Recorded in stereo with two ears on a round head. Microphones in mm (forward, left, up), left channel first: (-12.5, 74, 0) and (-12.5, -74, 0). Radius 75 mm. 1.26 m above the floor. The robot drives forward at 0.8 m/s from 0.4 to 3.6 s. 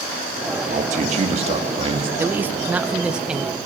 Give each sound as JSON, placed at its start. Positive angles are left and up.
{"t": 0.7, "sound": "a man speaking", "side_deg": -55, "distance_m": 1.8}
{"t": 2.2, "sound": "a man speaking", "side_deg": -15, "distance_m": 0.6}